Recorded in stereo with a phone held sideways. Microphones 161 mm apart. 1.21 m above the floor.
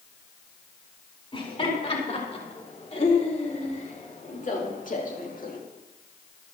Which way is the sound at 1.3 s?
35° left (ahead or behind).